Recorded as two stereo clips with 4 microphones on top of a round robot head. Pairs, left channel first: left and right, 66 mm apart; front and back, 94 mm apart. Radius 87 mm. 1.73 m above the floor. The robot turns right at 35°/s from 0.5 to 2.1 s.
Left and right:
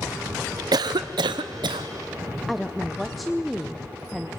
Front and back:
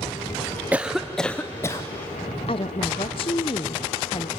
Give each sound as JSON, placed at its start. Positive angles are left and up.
{"t": 0.7, "sound": "a cough", "azimuth_deg": -105, "distance_m": 0.8}
{"t": 2.5, "sound": "a woman speaking", "azimuth_deg": 0, "distance_m": 0.7}